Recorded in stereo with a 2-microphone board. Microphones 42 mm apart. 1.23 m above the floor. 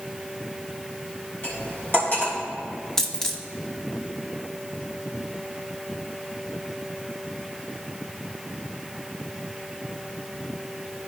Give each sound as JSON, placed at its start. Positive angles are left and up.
{"t": 1.4, "sound": "cutlery clinking", "side_deg": 55, "distance_m": 3.0}
{"t": 3.0, "sound": "a dropped coin", "side_deg": 10, "distance_m": 0.8}